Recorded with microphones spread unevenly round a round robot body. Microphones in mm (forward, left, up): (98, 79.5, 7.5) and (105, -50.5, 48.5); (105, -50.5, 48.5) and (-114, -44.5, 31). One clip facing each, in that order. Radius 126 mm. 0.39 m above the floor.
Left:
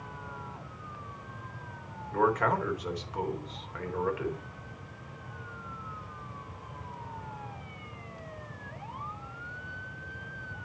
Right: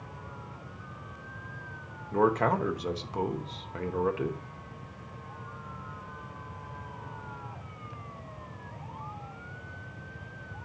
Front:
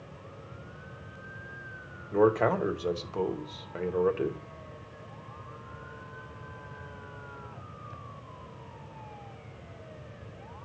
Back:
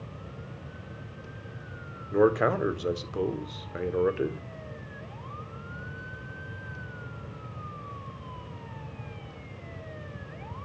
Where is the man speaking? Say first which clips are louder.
Right 2 dB, back 1 dB; 140° right, 0.8 m.